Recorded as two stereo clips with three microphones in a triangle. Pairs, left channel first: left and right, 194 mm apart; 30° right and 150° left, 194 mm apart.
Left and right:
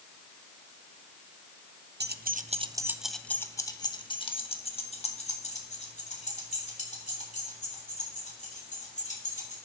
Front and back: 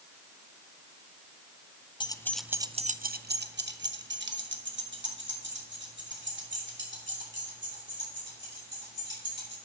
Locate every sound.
2.0 s keys jangling: 95° right, 0.6 m; by 9.5 s 135° left, 4.5 m